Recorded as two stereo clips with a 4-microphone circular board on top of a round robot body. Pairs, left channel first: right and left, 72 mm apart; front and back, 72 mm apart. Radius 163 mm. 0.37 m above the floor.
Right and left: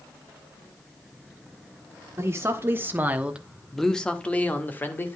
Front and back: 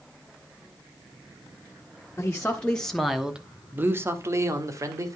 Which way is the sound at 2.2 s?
60° left.